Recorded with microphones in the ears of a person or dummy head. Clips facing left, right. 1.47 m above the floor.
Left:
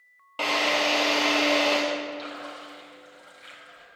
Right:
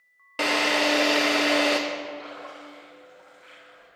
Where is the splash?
50° left (ahead or behind), 5.5 m.